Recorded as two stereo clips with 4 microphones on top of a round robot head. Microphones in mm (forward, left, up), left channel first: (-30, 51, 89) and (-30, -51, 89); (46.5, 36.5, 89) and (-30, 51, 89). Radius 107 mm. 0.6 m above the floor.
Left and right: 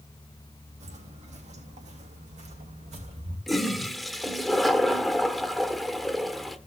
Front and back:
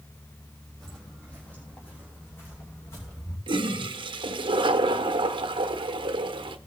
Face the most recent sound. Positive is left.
turn(degrees=180)